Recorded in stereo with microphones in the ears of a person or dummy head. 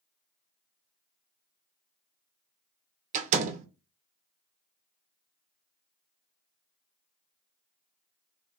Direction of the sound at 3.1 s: 35° right (ahead or behind).